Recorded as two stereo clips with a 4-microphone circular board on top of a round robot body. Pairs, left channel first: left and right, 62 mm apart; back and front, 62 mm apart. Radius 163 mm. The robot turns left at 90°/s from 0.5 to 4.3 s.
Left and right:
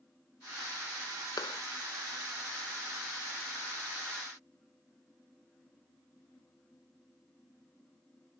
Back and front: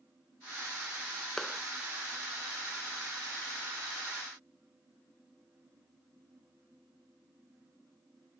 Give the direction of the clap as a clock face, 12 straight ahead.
9 o'clock.